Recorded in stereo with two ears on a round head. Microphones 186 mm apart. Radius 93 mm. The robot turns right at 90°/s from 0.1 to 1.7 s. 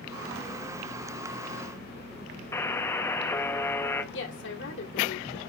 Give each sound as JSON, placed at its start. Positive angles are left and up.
{"t": 2.5, "sound": "a buzzer", "side_deg": 10, "distance_m": 1.0}
{"t": 4.1, "sound": "a woman speaking", "side_deg": 60, "distance_m": 2.5}